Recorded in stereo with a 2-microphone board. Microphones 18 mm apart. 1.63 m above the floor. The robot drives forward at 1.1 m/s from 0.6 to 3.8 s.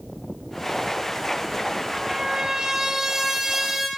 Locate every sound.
1.9 s a trumpet: 40° right (ahead or behind), 3 m; by 3.9 s 25° right (ahead or behind), 4.5 m